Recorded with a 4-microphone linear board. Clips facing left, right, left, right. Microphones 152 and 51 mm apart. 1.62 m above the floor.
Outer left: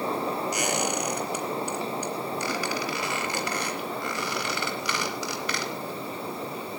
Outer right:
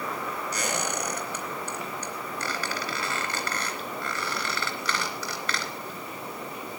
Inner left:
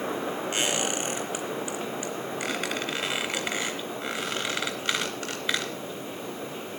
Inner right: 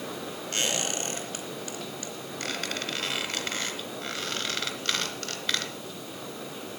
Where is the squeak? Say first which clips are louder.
Outer left 3 dB, even; 10° left (ahead or behind), 3 m.